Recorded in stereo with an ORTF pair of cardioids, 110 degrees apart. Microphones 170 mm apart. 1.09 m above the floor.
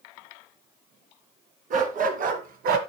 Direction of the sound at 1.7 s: 55° right.